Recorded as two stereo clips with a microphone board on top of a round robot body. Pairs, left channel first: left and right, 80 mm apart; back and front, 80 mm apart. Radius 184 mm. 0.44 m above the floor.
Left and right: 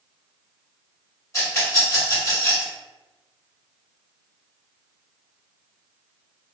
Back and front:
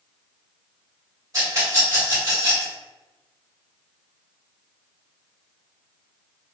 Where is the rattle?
45° left, 1.9 m.